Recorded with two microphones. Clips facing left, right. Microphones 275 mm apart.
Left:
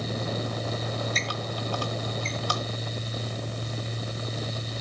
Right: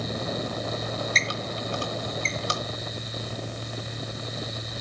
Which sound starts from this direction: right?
A squeak, at 1.1 s.